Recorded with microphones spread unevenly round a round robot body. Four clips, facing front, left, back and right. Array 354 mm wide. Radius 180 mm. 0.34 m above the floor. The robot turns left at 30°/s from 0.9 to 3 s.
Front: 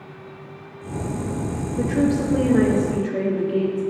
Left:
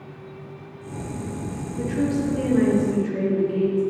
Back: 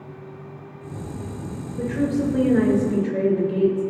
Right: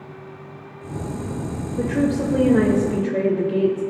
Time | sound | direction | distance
1.8 | a woman speaking | 60° right | 1.4 m